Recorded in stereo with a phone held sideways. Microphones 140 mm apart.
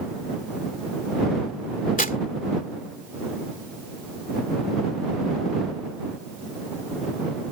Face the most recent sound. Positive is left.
turn(degrees=75)  # may be behind; listen again after turning